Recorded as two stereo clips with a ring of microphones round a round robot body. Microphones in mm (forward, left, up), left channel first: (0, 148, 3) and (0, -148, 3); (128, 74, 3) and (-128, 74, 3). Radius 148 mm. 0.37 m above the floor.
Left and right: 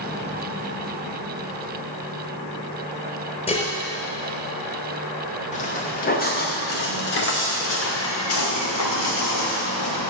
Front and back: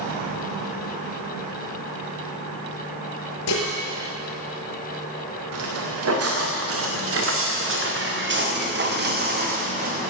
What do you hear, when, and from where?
3.5 s dishes clattering: 20° left, 4.5 m
5.5 s footsteps: 155° left, 3.5 m; by 10.1 s 120° left, 4 m